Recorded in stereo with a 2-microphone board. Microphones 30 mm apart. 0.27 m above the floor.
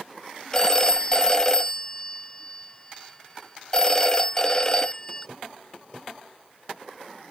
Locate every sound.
0.5 s a phone ringing: 25° left (ahead or behind)